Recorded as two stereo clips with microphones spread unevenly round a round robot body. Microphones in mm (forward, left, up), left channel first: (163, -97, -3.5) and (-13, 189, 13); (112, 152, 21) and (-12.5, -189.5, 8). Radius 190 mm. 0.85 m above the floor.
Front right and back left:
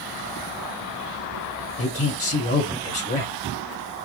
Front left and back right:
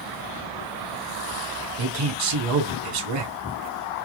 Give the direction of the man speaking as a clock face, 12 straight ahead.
4 o'clock.